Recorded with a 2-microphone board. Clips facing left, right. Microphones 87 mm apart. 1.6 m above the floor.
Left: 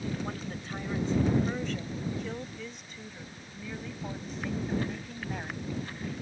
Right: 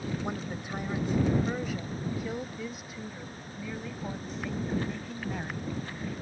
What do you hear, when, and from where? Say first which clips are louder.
0.2 s a woman speaking: right 2 dB; 15° right (ahead or behind); by 5.7 s 5° left (ahead or behind)